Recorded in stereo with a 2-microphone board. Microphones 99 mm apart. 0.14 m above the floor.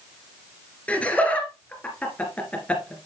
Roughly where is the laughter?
Centre.